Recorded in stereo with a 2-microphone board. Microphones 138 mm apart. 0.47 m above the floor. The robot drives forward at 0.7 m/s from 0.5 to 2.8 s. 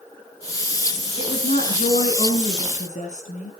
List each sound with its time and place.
1.2 s a woman speaking: 70° left (ahead or behind), 5.5 m; by 3.5 s 60° left (ahead or behind), 5.5 m